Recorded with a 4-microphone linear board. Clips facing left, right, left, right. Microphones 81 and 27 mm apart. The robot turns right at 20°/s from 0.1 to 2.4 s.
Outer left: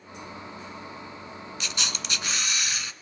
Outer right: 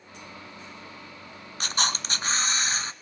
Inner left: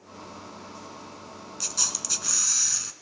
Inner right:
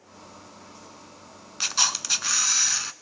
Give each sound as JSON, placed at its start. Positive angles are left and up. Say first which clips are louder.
{"t": 1.6, "sound": "a camera shutter", "louder": "outer right 7 dB, inner right 6 dB", "side_deg": -45, "distance_m": 0.7}